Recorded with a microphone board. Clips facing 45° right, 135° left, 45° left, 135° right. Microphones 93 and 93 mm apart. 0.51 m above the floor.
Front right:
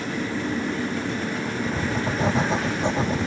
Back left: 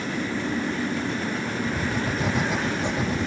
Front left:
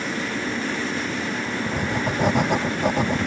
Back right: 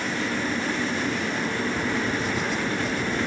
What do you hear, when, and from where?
1.7 s writing: 15° left